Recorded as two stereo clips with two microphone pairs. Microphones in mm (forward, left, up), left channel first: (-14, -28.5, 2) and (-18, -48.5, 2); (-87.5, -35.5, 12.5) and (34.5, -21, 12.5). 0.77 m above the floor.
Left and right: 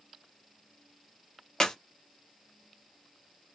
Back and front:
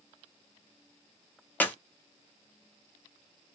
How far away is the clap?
About 0.6 m.